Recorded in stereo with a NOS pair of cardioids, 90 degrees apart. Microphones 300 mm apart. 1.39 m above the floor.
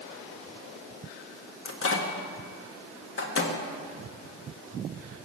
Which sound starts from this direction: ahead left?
A microwave, at 1.6 s.